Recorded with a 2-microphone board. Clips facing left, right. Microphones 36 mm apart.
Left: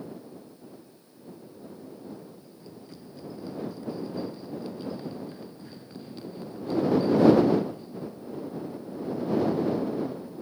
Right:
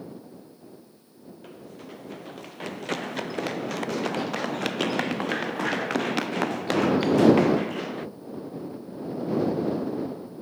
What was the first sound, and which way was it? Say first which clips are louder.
Running footsteps: right 4 dB; 75° right (ahead or behind).